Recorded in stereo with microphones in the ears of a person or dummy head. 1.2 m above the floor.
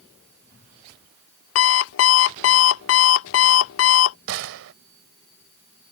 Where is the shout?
No shout in this recording.